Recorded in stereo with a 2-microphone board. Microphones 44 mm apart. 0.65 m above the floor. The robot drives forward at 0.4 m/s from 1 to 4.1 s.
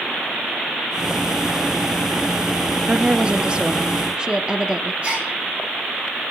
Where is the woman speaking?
25° right (ahead or behind), 0.7 m; by 4.9 s 15° right (ahead or behind), 1.0 m.